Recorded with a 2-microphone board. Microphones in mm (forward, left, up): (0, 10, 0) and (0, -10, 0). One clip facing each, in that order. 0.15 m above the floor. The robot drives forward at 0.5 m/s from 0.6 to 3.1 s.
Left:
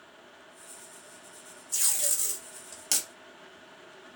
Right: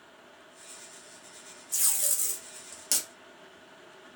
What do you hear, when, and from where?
1.7 s tape being pulled: 15° left (ahead or behind), 0.9 m; by 3.1 s 10° left (ahead or behind), 1.5 m